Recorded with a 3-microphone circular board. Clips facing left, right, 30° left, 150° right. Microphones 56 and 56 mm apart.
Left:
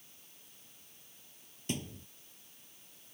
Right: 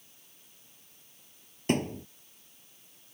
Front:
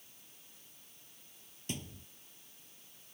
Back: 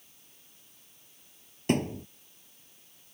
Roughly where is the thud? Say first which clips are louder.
Right 11 dB, back 16 dB; behind right.